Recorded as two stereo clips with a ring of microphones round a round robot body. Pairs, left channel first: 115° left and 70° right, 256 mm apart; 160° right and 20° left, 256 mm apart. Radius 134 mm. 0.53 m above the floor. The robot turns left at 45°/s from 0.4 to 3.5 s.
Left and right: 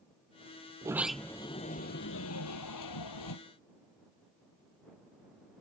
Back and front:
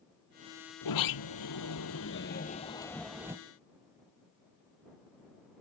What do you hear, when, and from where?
0.8 s a sliding door: 145° right; by 3.4 s 100° left